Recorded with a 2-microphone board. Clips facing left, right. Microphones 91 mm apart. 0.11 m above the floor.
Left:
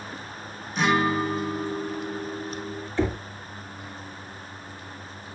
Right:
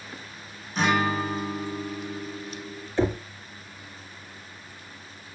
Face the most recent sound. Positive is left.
turn(degrees=-25)  # may be behind; listen again after turning